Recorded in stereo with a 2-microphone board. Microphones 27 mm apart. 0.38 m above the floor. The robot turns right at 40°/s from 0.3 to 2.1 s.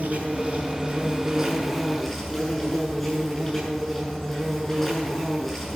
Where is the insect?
60° right, 7 m; by 5.8 s 10° left, 7 m.